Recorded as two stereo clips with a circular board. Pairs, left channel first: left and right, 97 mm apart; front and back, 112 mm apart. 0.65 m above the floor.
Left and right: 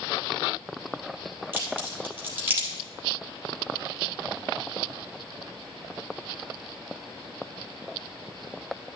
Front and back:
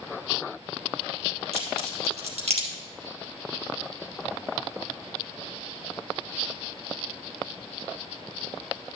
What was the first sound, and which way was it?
A crack, 160° right.